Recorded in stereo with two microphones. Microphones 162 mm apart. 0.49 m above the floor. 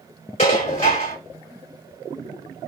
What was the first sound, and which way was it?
Dishes clattering, 45° left (ahead or behind).